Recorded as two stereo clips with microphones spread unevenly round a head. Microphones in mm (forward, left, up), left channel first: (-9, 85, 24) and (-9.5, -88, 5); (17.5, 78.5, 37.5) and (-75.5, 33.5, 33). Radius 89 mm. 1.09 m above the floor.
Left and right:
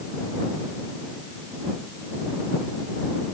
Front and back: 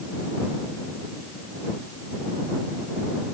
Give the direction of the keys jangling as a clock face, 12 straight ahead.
I don't hear keys jangling.